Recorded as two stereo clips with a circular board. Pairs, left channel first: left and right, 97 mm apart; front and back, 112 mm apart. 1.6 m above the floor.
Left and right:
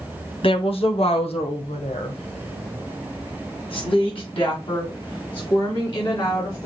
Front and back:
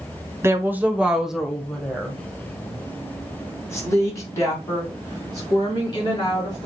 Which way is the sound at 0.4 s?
115° left.